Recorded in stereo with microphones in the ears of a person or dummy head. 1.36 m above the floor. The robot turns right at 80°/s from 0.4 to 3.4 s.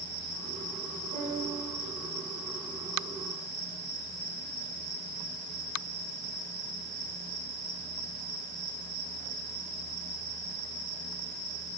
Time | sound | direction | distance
1.1 | a piano | 145° right | 3.5 m